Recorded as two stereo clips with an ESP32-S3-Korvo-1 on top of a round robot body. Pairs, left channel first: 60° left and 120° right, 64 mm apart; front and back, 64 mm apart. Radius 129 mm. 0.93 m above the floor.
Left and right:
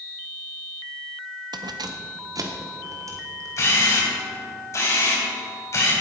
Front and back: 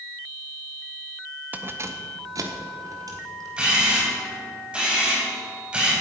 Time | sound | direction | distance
1.5 | keys jangling | 115° right | 0.6 m
3.6 | a camera shutter | 105° left | 4 m